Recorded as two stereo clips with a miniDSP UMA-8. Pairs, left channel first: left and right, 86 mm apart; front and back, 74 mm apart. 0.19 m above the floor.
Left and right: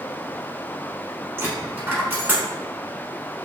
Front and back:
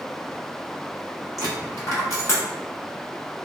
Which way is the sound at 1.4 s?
30° right.